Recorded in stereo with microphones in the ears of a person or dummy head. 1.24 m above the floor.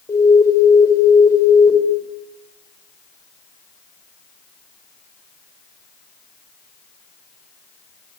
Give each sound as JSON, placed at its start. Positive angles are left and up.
{"t": 0.1, "sound": "an alarm", "side_deg": 15, "distance_m": 5.5}